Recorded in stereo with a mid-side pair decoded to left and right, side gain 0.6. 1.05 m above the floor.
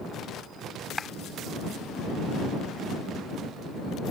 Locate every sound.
1.0 s a clap: 15° left